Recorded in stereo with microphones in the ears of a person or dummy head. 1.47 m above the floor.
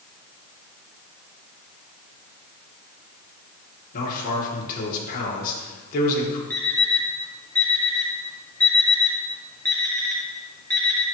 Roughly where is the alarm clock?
Centre.